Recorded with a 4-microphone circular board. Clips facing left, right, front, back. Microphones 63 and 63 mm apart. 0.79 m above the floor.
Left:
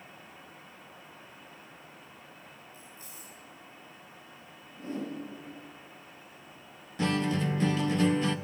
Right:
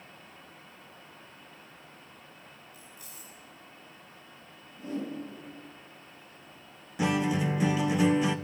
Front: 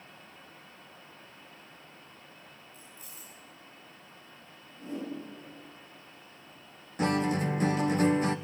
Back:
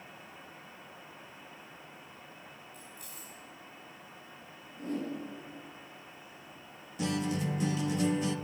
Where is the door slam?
I don't hear a door slam.